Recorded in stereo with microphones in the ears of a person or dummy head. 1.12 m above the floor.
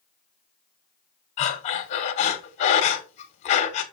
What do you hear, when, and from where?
1.4 s breathing: 40° left (ahead or behind), 1.6 m